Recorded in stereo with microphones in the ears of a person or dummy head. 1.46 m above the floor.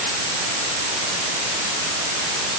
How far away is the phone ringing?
I don't hear a phone ringing.